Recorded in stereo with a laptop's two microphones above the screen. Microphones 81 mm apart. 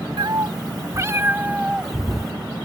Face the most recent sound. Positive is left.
turn(degrees=5)  # may be behind; listen again after turning